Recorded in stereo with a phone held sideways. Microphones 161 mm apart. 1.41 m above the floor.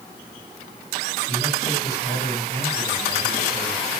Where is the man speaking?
80° left, 10 m.